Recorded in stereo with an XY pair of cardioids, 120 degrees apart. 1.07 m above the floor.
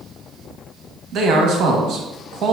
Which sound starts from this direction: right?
A man speaking, at 1.1 s.